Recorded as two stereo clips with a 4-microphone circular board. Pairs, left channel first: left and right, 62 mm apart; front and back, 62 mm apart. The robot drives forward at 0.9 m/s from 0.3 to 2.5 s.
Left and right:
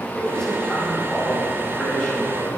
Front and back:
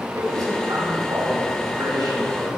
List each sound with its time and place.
0.1 s a man speaking: 175° left, 6.5 m